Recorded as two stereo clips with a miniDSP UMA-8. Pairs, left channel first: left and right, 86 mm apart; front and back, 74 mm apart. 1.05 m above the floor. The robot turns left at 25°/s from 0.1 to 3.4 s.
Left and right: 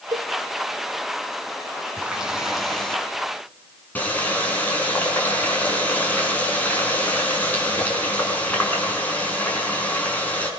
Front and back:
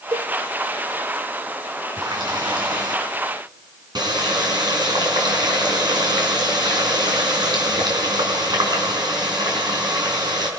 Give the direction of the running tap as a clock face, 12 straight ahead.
5 o'clock.